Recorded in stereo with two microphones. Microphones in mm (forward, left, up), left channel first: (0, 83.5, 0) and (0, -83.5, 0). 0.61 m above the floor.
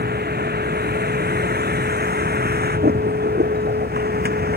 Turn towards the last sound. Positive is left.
turn(degrees=-70)  # may be behind; listen again after turning